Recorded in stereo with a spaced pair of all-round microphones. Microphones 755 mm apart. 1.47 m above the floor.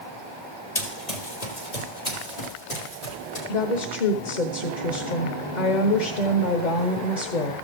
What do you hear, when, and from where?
0.8 s running footsteps: 55° left (ahead or behind), 2.5 m; by 3.4 s 60° left (ahead or behind), 4 m
3.5 s a woman speaking: 70° left (ahead or behind), 1.1 m